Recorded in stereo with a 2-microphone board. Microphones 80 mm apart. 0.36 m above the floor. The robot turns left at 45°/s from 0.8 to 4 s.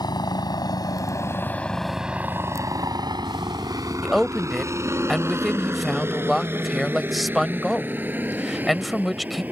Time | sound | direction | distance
0.0 | a helicopter | 60° left (ahead or behind) | ?
4.0 | a woman speaking | centre (ahead or behind) | ?